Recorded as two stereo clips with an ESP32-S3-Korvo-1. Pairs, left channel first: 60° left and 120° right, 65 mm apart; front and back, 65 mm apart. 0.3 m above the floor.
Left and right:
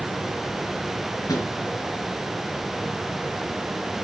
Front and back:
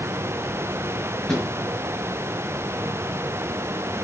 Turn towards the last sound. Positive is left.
turn(degrees=80)